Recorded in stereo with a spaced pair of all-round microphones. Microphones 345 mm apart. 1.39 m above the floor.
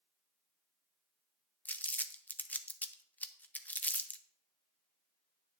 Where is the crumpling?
5° left (ahead or behind), 0.5 m.